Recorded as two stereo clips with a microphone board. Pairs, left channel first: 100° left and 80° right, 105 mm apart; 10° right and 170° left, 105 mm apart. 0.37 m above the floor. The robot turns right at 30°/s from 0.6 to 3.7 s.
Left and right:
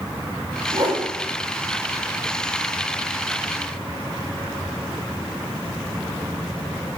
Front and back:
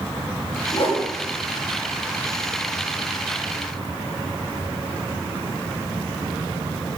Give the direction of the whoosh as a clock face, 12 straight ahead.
1 o'clock.